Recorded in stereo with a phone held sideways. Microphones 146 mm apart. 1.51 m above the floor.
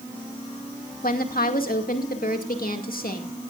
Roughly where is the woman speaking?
Left.